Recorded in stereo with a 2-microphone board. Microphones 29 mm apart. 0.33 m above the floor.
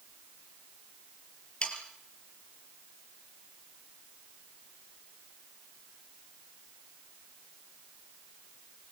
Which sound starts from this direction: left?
Sawing, at 1.6 s.